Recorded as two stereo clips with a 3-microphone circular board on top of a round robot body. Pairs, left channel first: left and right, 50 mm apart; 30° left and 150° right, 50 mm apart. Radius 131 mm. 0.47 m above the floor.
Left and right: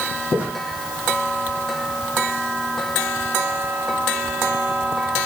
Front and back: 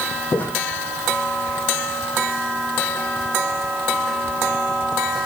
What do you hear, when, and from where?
0.3 s footsteps: 30° right, 1.8 m